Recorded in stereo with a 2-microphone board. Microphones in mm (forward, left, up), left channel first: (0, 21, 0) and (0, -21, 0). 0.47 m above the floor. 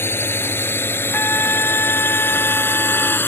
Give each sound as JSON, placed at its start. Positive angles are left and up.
{"t": 0.0, "sound": "a drone", "side_deg": 70}
{"t": 1.1, "sound": "a trumpet", "side_deg": 65}